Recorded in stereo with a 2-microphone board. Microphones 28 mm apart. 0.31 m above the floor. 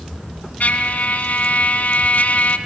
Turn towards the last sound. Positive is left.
turn(degrees=65)  # may be behind; listen again after turning